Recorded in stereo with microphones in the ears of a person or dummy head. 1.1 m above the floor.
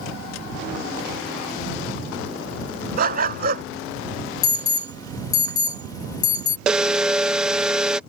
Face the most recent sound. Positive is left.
turn(degrees=-10)  # may be behind; listen again after turning